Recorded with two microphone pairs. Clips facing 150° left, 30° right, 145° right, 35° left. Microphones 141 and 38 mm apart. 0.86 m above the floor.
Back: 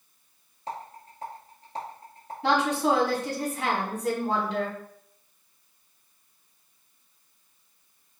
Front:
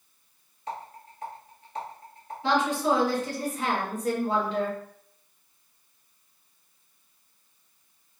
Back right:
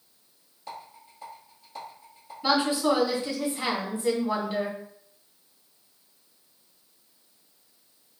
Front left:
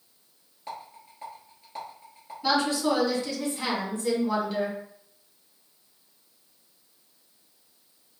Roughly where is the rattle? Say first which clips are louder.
Even, front left 2 dB; left.